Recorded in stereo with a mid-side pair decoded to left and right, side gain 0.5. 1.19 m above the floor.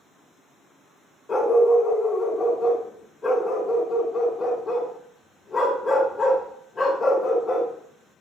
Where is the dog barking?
40° left, 1.8 m.